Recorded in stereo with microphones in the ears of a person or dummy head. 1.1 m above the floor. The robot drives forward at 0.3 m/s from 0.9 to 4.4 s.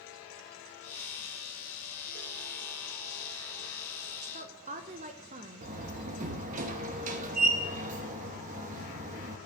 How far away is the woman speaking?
About 0.9 m.